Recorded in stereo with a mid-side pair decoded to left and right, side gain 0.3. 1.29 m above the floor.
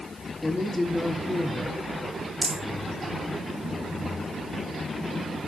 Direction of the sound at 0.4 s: 30° left.